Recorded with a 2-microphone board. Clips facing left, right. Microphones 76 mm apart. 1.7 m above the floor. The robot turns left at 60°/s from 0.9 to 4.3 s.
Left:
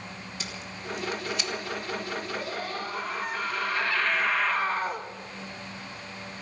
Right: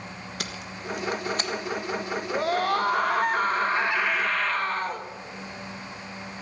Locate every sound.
0.4 s tape being pulled: 65° right (ahead or behind), 1.5 m; by 1.5 s 35° right (ahead or behind), 1.5 m
2.3 s a scream: 65° right, 2.0 m; by 5.1 s 175° left, 2.0 m